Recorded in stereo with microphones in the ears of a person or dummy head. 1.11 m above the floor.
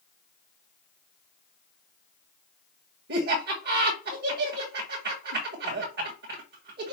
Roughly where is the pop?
No pop in this recording.